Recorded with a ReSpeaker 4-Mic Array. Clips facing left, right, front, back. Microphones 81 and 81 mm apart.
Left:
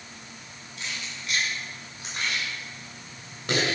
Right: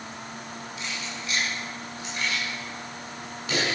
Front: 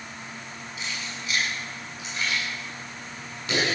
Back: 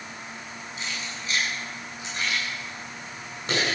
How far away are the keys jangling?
About 7 m.